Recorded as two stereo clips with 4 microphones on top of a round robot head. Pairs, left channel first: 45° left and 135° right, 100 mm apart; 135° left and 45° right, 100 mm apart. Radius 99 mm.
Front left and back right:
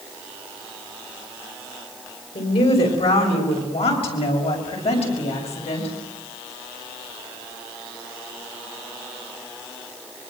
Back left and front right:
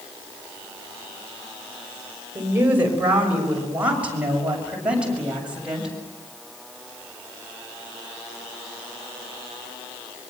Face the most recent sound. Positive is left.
turn(degrees=35)